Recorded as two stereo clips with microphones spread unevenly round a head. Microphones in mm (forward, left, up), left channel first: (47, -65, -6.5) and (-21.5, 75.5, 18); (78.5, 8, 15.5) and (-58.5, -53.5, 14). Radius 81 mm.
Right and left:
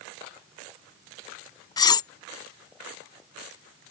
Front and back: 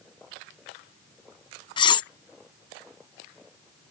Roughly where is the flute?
No flute in this recording.